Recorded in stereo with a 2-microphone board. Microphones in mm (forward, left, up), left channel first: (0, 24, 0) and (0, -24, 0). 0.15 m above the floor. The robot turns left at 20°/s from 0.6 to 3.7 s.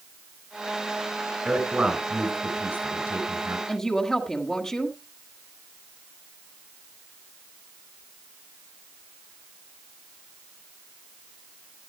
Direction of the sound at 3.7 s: 10° left (ahead or behind).